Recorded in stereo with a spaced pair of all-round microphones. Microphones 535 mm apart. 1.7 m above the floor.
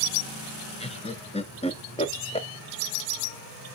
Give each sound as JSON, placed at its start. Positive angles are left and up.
{"t": 0.8, "sound": "laughter", "side_deg": 10, "distance_m": 0.7}